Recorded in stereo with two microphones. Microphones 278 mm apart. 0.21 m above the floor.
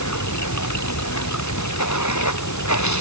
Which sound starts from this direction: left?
Running water, at 0.0 s.